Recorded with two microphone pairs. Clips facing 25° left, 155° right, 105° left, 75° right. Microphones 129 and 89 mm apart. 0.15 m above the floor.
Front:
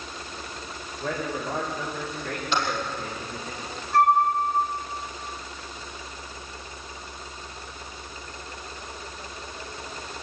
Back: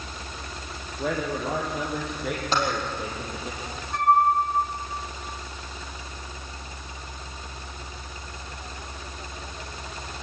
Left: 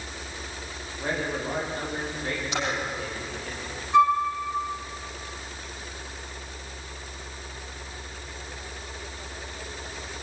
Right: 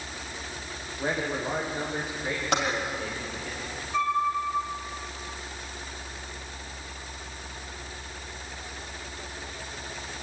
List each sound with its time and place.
1.0 s a man speaking: 150° right, 7.5 m; by 3.5 s 165° right, 6 m
2.5 s typing on a keyboard: 100° right, 6 m
3.9 s a flute: 115° left, 6 m